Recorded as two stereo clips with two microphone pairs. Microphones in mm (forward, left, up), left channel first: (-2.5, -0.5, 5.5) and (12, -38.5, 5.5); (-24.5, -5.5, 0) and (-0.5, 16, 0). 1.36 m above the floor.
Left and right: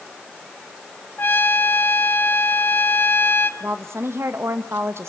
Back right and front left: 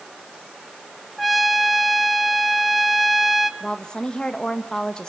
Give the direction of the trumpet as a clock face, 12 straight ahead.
8 o'clock.